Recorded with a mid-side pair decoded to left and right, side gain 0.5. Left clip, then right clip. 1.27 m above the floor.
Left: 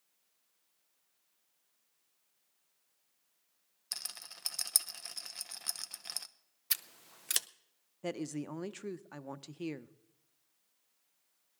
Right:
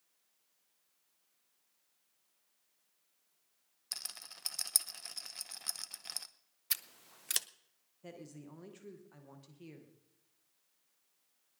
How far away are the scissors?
About 0.6 m.